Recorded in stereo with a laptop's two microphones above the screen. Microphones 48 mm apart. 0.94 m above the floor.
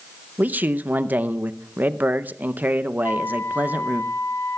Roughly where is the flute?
Left.